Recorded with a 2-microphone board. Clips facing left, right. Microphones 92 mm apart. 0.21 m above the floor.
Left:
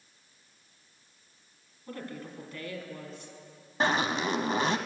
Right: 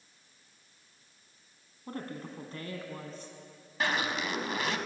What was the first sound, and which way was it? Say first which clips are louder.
A woman speaking: even; 35° right (ahead or behind).